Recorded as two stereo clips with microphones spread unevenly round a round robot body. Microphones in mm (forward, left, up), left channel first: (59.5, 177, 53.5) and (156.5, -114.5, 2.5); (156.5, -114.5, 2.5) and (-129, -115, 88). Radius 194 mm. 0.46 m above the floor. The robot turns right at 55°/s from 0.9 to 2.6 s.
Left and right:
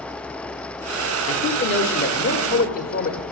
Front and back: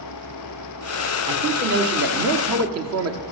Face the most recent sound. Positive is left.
turn(degrees=170)